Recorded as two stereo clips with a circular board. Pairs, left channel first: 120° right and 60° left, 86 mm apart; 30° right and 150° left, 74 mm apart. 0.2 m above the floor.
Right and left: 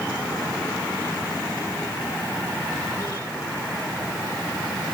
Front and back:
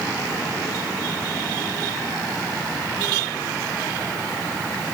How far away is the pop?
No pop in this recording.